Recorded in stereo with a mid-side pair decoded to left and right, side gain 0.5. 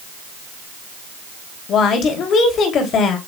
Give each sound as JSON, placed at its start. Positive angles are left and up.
{"t": 1.7, "sound": "a woman speaking", "azimuth_deg": 60, "distance_m": 3.5}